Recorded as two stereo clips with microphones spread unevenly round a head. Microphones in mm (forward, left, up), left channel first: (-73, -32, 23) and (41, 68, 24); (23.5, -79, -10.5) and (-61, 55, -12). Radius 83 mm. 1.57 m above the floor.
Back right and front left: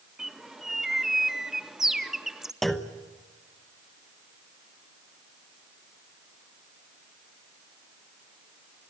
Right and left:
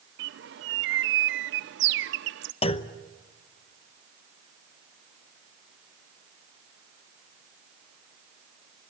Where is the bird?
130° left, 0.8 m.